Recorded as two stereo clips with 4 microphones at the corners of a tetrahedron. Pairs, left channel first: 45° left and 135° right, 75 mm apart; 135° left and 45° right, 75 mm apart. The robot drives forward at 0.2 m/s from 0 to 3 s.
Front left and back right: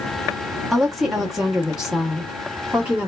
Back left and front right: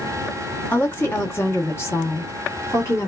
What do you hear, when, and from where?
0.7 s a woman speaking: 135° left, 0.9 m; by 3.1 s 160° left, 1.1 m